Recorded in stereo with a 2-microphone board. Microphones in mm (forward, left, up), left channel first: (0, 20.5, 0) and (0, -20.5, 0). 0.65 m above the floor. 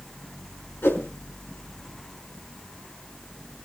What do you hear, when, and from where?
0.8 s a whoosh: 80° left, 4.5 m